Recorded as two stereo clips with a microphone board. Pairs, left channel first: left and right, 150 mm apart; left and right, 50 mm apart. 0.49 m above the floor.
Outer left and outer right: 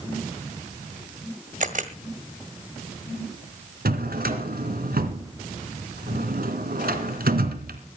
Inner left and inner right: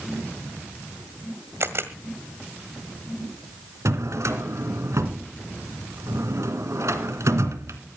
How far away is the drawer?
About 1.9 m.